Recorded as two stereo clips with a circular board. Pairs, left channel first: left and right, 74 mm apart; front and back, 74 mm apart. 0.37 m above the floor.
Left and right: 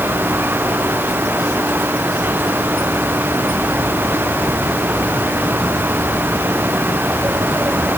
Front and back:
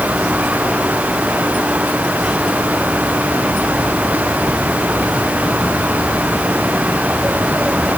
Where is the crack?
I don't hear a crack.